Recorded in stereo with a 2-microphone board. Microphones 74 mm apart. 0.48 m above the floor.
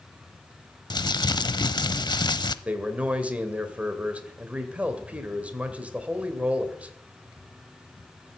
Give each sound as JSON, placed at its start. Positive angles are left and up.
{"t": 0.9, "sound": "crumpling", "side_deg": 70, "distance_m": 0.6}
{"t": 2.6, "sound": "a man speaking", "side_deg": -20, "distance_m": 2.0}